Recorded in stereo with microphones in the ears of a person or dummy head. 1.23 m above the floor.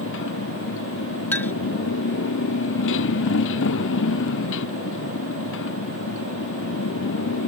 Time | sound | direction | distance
0.0 | a motorcycle | 70° left (ahead or behind) | ?
1.3 | a clink | 15° left (ahead or behind) | ?